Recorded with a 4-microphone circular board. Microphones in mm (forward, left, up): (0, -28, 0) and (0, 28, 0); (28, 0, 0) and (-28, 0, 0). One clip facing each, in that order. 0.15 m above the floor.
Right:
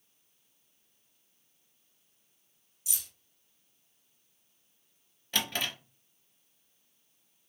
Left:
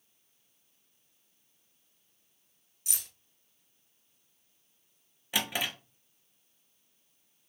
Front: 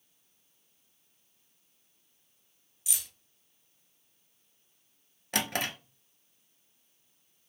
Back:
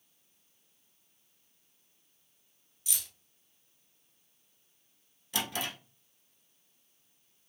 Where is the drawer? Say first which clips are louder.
Left 1 dB, front 3 dB; 15° left, 0.6 m.